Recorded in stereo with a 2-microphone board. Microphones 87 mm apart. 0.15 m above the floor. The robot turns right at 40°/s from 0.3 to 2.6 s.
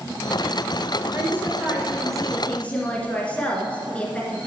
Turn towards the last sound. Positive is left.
turn(degrees=15)